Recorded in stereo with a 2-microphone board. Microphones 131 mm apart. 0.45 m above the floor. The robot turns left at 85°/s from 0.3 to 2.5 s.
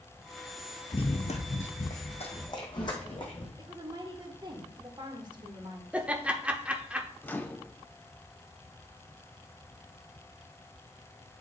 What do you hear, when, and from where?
0.9 s running footsteps: 45° left (ahead or behind), 0.7 m; by 3.5 s 40° left (ahead or behind), 2 m
3.6 s a woman speaking: 35° right (ahead or behind), 1.3 m
5.9 s laughter: 10° right (ahead or behind), 0.8 m
7.2 s a microwave: 15° left (ahead or behind), 0.6 m